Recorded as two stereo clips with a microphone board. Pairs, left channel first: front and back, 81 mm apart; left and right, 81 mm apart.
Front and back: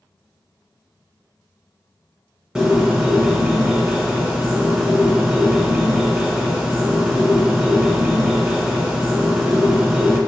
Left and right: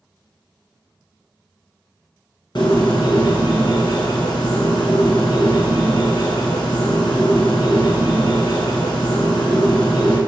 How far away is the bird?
About 1.0 m.